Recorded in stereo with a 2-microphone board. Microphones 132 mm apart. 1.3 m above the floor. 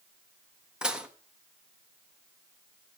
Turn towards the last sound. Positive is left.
turn(degrees=-5)  # may be behind; listen again after turning